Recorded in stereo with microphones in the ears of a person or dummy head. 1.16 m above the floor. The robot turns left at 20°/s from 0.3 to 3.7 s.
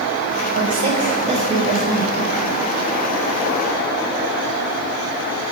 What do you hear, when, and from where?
0.6 s a woman speaking: 130° right, 6 m; by 2.2 s 165° right, 6 m